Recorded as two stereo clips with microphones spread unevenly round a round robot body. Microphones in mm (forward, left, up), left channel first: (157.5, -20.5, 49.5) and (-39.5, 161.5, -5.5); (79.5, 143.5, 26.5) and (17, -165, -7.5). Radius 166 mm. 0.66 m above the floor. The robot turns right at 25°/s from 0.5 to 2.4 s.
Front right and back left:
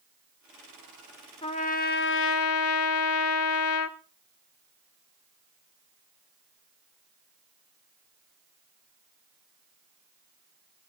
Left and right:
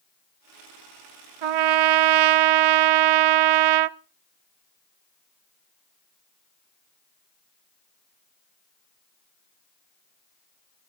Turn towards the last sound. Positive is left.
turn(degrees=-90)